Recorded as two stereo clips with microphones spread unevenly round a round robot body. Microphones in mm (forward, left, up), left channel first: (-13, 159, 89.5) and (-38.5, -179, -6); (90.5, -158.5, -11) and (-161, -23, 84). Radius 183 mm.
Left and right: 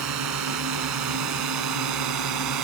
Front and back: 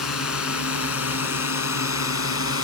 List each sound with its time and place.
0.0 s a drone: 55° right; by 2.6 s 65° right